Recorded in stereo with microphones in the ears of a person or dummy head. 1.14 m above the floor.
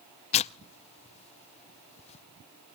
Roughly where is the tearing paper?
Left.